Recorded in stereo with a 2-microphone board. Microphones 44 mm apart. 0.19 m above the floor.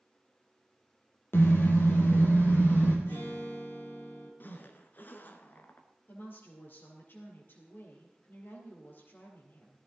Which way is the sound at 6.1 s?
50° left (ahead or behind).